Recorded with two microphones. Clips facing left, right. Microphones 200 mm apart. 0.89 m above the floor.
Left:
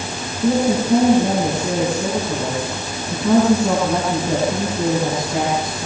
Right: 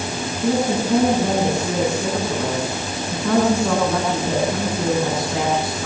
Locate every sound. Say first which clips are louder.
0.4 s a woman speaking: left 3 dB; 15° left (ahead or behind), 9 m